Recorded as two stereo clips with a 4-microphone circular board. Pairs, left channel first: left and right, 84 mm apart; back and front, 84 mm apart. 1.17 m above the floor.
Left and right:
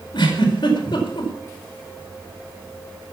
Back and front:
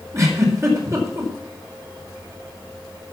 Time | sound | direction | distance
0.1 | a giggle | 55° left | 4.5 m